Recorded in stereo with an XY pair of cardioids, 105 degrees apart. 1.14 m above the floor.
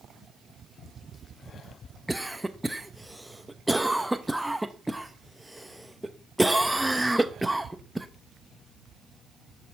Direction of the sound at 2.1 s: 5° right.